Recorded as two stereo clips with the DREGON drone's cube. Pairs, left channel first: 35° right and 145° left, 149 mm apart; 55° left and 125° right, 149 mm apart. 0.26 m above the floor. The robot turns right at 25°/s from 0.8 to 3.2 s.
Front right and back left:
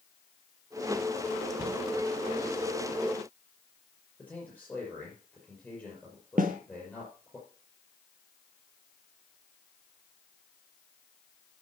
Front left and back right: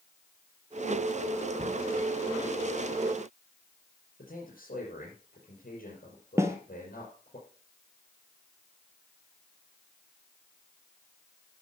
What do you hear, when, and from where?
1.6 s a cupboard door: 155° right, 2.5 m; by 1.8 s 150° right, 2.5 m
4.2 s a man speaking: 50° left, 5 m
6.4 s a snare drum: 165° left, 1.2 m